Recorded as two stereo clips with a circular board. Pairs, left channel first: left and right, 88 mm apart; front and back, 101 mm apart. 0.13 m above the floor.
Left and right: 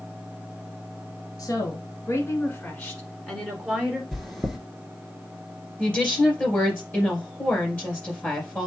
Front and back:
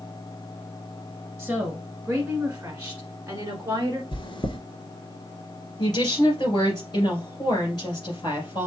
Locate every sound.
1.4 s a woman speaking: 95° left, 1.4 m; by 4.0 s 155° right, 1.4 m
4.1 s chewing: straight ahead, 1.1 m
5.8 s a woman speaking: 25° left, 2.5 m